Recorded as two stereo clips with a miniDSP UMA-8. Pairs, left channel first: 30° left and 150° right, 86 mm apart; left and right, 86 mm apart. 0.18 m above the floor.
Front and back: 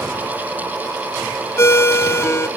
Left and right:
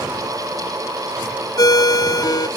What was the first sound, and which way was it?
A ringtone, 75° left.